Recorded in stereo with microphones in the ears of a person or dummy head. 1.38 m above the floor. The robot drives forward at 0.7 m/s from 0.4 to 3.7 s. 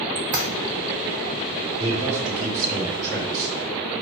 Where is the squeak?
15° right (ahead or behind), 0.6 m.